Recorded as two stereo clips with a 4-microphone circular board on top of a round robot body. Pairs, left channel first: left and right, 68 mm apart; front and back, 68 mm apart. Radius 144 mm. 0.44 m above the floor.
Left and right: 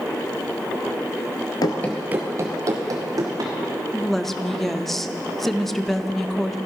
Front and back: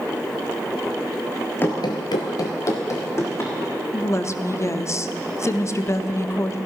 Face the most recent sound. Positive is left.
turn(degrees=5)